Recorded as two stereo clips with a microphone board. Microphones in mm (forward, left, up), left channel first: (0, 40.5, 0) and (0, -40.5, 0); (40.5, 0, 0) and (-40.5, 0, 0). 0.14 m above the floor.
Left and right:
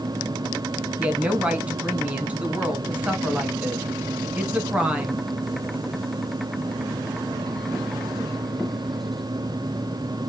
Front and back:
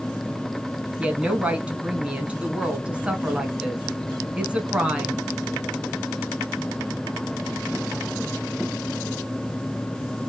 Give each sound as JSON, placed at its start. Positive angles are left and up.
{"t": 1.0, "sound": "a woman speaking", "azimuth_deg": -130, "distance_m": 1.1}